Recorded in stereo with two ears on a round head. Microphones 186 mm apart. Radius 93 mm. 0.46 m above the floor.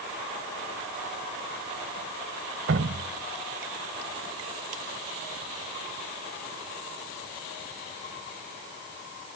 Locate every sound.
2.7 s dripping: 65° right (ahead or behind)